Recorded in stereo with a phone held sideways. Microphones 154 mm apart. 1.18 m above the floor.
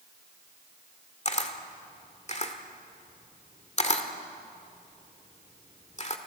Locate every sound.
1.2 s a camera shutter: 45° left (ahead or behind), 1.7 m